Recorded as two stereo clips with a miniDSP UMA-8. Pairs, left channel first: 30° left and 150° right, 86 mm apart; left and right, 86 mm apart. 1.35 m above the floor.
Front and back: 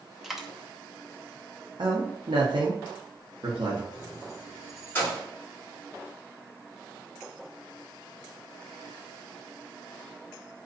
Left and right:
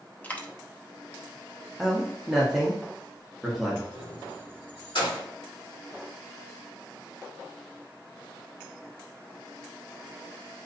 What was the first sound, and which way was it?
A dropped coin, 130° left.